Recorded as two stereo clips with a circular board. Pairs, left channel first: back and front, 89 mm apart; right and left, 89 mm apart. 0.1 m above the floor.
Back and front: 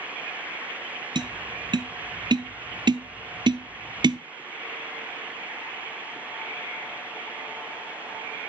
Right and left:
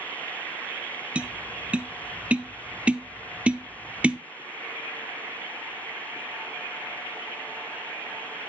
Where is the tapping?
15° left, 0.5 m.